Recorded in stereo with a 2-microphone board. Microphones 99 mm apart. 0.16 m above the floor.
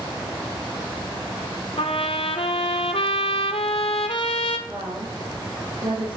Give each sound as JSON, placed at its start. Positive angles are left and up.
{"t": 1.8, "sound": "a trumpet", "side_deg": 85, "distance_m": 0.8}
{"t": 4.7, "sound": "a woman speaking", "side_deg": -60, "distance_m": 3.0}